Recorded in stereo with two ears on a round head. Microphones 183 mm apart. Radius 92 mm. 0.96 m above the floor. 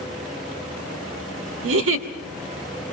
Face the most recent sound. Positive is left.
turn(degrees=-70)  # may be behind; listen again after turning